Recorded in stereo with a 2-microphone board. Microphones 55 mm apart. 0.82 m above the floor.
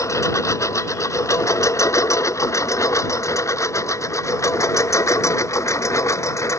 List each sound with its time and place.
0.0 s a lawn mower: 85° left; by 6.6 s 75° left (ahead or behind)